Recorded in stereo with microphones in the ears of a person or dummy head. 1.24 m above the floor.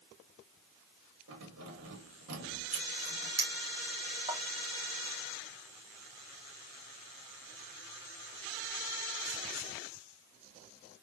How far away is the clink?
About 0.6 m.